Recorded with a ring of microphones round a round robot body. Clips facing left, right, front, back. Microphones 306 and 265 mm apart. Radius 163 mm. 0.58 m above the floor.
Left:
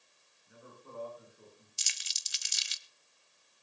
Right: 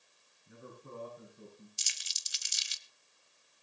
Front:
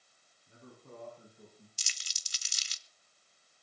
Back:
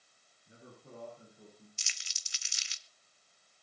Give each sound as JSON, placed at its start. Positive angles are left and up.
{"t": 0.5, "sound": "a man speaking", "azimuth_deg": -100, "distance_m": 6.0}
{"t": 1.8, "sound": "crumpling", "azimuth_deg": 50, "distance_m": 1.0}